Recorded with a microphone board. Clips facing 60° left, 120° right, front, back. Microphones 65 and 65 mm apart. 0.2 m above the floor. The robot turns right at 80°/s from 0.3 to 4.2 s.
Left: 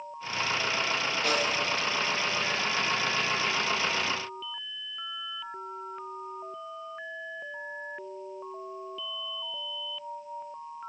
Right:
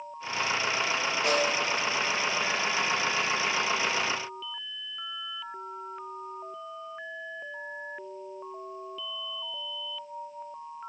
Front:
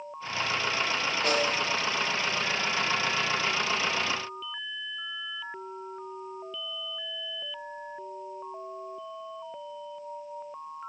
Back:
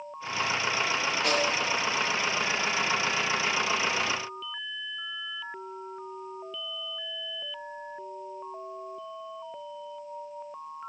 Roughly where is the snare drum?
Ahead right.